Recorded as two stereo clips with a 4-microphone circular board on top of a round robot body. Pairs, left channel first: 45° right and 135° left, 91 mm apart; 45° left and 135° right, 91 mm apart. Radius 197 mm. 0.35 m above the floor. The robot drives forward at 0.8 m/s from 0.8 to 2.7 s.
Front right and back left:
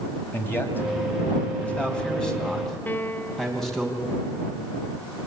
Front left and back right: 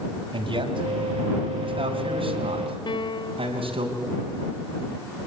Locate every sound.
0.3 s a man speaking: 110° right, 3.5 m; by 3.9 s 130° right, 4 m
2.9 s a piano: 25° left, 1.2 m